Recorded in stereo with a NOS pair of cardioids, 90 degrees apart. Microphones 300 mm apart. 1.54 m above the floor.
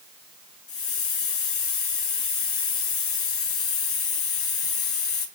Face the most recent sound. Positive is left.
turn(degrees=50)